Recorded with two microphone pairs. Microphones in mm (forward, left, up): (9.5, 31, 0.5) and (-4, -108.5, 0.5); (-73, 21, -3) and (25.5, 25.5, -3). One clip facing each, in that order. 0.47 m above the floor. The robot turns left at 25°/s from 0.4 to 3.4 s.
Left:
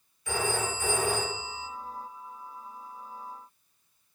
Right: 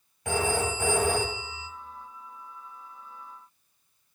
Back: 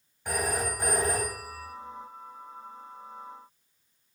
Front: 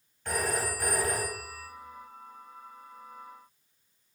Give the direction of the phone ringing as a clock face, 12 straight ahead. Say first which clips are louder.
Right 3 dB, back 1 dB; 3 o'clock.